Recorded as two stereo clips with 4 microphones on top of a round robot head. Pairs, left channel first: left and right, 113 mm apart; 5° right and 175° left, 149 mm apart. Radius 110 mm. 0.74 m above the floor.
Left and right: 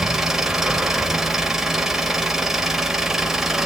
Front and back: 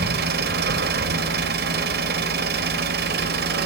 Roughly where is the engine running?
Behind.